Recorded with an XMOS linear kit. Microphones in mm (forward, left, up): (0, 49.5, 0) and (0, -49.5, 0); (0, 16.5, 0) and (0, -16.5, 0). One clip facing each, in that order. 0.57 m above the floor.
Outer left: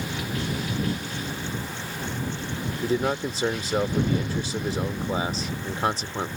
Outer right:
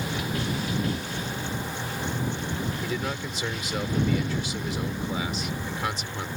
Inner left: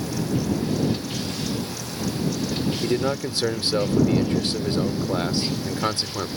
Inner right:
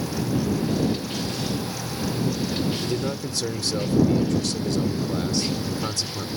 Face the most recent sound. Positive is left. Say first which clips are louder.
# outer left 6 dB, inner left 4 dB
turn(degrees=35)  # may be behind; listen again after turning